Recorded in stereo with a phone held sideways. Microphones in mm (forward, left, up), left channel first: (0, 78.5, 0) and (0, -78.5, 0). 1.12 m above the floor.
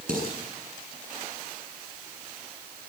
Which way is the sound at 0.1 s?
60° right (ahead or behind).